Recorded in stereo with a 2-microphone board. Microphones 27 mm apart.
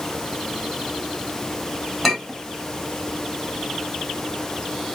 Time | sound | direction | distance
2.0 | a clink | 5° right (ahead or behind) | 1.3 m